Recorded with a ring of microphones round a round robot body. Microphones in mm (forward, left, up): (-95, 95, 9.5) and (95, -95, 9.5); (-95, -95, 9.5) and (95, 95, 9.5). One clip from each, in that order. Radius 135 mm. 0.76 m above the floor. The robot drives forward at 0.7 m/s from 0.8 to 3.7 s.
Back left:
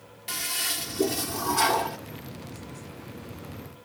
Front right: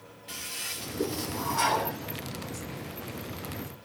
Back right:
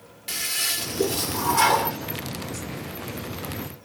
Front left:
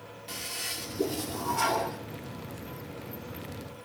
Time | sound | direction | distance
0.3 | a toilet flushing | 165° left | 2 m